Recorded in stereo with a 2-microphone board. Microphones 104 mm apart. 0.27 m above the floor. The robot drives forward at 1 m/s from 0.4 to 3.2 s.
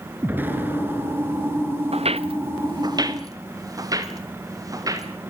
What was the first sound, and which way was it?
An explosion, 20° right (ahead or behind).